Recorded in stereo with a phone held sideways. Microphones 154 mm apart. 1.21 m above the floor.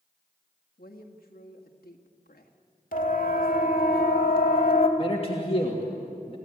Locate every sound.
0.8 s a woman speaking: 75° left (ahead or behind), 1.8 m
2.9 s a siren: 60° left (ahead or behind), 2.5 m; by 4.9 s 70° left (ahead or behind), 2 m
5.0 s a man speaking: 40° left (ahead or behind), 2.5 m